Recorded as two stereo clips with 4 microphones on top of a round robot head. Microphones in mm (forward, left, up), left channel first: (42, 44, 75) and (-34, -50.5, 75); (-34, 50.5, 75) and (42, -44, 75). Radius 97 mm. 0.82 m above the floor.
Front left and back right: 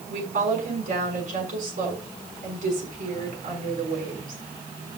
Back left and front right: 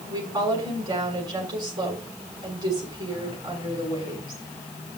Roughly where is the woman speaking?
Right.